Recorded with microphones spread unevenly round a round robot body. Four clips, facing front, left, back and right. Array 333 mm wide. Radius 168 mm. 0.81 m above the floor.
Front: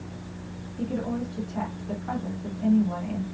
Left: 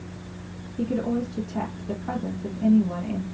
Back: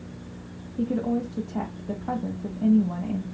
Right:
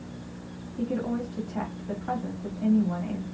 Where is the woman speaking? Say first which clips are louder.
Left 3 dB, back 4 dB; 175° left, 1.1 m.